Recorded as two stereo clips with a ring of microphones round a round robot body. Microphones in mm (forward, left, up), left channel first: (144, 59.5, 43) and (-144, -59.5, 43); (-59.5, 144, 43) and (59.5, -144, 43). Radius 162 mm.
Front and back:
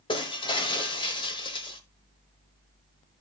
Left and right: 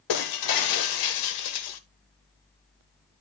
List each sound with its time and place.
0.1 s breaking glass: 95° left, 0.9 m